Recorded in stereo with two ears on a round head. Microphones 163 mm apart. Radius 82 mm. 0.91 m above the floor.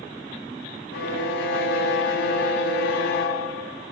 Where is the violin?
70° left (ahead or behind), 1.8 m.